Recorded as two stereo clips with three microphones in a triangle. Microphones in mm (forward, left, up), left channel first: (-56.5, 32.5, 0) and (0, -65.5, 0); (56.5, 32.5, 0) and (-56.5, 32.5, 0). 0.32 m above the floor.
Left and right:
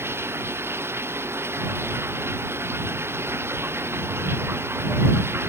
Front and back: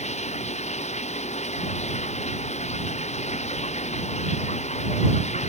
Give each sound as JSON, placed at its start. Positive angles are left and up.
{"t": 0.0, "sound": "running water", "azimuth_deg": 10}